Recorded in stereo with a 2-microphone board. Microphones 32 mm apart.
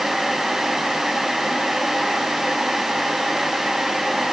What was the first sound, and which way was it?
Only background noise.